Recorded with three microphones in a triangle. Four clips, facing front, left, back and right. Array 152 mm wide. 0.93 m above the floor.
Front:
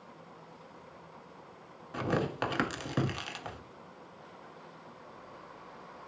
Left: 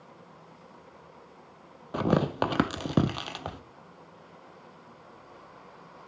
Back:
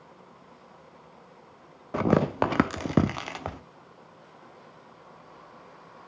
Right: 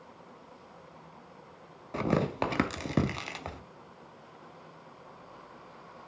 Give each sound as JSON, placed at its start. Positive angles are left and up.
{"t": 1.9, "sound": "tearing paper", "azimuth_deg": 165, "distance_m": 0.6}